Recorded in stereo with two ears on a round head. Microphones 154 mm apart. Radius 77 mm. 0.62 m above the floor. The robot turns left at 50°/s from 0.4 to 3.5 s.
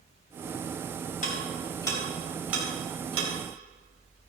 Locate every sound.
1.2 s ticking: 55° left (ahead or behind), 4 m; by 3.3 s 45° right (ahead or behind), 4 m